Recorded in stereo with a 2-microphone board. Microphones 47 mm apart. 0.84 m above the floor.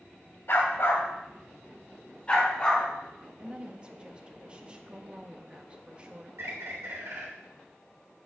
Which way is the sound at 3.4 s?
25° right (ahead or behind).